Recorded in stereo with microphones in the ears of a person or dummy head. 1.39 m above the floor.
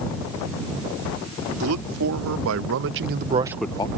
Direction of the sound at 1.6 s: 85° right.